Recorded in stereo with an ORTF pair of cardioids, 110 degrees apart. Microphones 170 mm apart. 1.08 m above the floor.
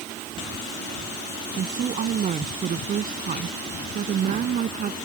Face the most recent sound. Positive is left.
turn(degrees=-55)